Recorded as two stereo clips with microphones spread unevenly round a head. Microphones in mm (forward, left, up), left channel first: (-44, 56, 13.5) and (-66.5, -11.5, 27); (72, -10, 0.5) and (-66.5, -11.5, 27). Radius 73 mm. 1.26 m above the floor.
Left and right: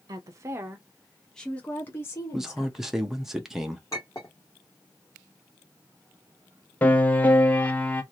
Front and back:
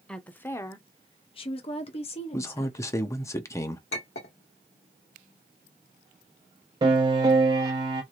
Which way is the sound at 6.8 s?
140° left.